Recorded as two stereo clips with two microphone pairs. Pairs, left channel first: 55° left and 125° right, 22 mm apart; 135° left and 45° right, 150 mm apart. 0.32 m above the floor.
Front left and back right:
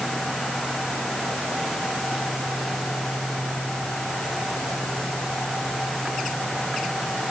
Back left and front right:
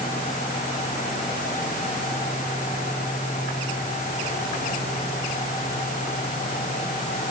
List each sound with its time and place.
Only background noise.